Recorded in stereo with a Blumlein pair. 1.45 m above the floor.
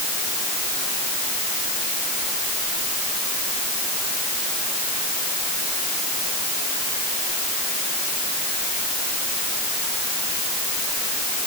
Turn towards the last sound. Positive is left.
No sound to turn to.